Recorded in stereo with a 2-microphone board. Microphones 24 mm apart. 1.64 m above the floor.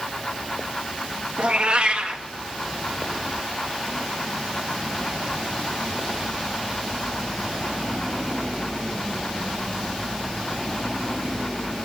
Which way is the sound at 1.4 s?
50° right (ahead or behind).